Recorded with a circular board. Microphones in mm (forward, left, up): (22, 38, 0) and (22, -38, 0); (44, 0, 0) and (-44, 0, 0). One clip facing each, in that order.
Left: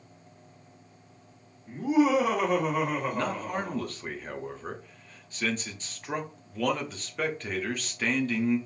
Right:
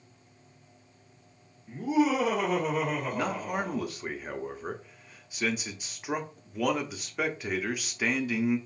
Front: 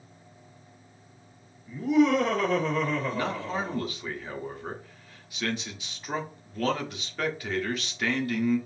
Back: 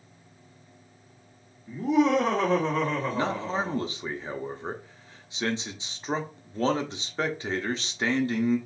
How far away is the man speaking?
About 0.7 m.